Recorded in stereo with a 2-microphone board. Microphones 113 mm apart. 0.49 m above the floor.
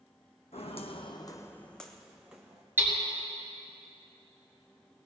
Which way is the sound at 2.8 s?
20° right (ahead or behind).